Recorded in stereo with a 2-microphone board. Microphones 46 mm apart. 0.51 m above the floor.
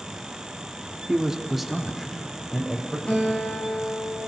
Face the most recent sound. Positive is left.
turn(degrees=25)  # may be behind; listen again after turning